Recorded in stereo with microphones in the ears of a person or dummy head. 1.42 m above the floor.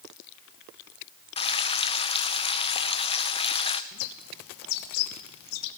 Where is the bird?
80° left, 1.5 m.